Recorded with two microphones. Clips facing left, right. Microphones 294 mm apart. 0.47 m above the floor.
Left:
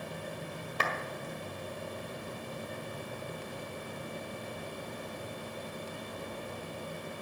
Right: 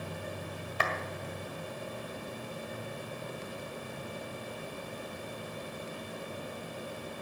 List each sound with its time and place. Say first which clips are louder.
0.8 s a clap: right 1 dB; 50° left (ahead or behind), 1.8 m